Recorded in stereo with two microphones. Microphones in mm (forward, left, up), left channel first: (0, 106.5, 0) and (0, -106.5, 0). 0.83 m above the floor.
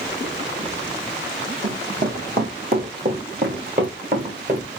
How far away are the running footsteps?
About 2 m.